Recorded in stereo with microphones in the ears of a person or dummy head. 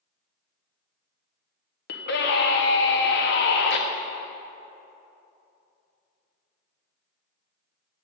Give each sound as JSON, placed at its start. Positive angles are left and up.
{"t": 1.9, "sound": "a scream", "side_deg": 55, "distance_m": 1.0}